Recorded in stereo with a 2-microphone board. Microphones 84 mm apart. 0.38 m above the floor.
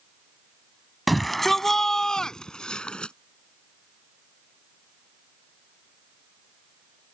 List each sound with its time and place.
1.1 s a shout: centre (ahead or behind); by 3.1 s 10° left (ahead or behind)